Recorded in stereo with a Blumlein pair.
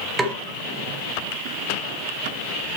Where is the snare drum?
15° right, 1.3 m.